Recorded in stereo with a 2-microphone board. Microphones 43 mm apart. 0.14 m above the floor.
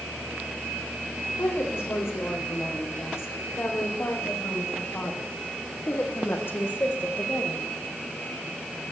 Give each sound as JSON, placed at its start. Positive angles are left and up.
{"t": 1.4, "sound": "a woman speaking", "side_deg": 70, "distance_m": 8.5}